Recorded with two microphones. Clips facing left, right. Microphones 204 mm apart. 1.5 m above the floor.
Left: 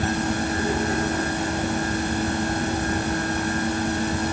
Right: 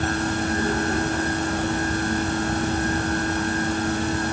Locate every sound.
Only background noise.